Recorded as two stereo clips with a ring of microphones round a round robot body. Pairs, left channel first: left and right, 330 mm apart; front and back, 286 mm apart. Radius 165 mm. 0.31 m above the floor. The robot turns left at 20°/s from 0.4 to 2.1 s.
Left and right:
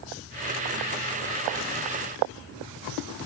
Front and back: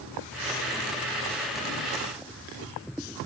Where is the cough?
No cough in this recording.